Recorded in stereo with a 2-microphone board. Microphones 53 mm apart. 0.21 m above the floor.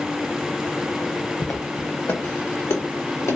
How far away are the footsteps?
About 0.9 m.